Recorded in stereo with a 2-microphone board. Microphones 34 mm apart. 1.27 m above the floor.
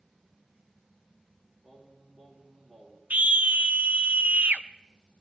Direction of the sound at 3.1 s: 50° right (ahead or behind).